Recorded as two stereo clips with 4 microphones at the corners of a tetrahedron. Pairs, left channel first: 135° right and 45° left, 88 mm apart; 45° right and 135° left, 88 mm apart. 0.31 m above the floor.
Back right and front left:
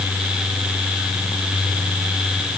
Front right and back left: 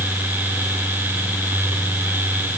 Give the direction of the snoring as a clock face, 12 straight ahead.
No snoring in this recording.